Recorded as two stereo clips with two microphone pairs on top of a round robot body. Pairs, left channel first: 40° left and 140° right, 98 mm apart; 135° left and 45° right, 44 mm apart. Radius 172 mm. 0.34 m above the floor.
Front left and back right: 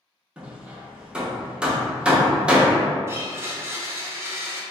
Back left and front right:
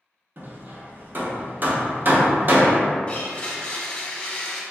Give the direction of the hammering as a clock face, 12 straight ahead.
2 o'clock.